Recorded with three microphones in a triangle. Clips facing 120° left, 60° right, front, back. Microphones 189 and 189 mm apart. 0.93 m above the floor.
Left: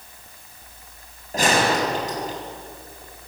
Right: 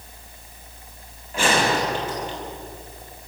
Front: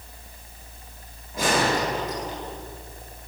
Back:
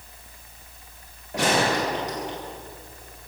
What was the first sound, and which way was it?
A gunshot, 170° left.